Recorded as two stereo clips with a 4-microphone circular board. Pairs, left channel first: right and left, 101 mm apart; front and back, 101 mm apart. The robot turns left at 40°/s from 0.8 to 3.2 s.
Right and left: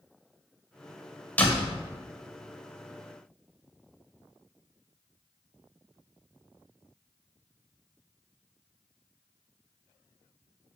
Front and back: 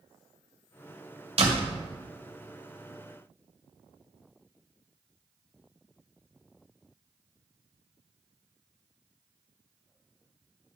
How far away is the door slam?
About 1.8 m.